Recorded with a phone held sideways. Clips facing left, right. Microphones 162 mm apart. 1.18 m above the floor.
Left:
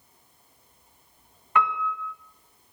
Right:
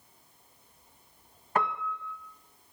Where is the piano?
35° right (ahead or behind), 1.6 m.